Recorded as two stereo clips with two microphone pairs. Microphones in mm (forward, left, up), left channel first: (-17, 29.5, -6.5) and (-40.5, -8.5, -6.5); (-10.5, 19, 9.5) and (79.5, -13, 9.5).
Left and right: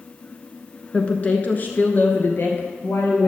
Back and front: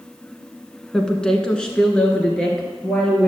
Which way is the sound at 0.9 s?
85° left.